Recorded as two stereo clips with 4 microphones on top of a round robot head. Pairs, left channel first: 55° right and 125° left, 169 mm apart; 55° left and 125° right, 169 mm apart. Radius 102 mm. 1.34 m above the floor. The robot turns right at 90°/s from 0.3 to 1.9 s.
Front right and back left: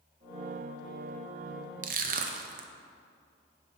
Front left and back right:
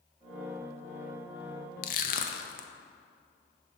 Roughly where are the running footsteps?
I don't hear running footsteps.